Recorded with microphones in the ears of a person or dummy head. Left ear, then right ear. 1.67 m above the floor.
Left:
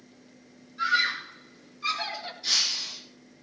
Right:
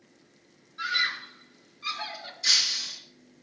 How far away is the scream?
About 5 m.